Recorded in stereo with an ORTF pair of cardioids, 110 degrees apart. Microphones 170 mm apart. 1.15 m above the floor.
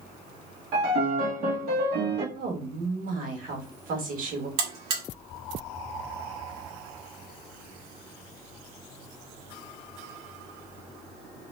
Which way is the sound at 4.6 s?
70° right.